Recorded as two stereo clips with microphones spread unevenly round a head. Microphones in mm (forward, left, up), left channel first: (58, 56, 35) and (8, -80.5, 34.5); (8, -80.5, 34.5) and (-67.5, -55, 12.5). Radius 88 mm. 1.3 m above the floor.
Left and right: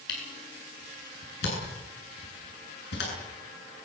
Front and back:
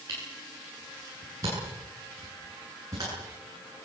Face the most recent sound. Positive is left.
turn(degrees=95)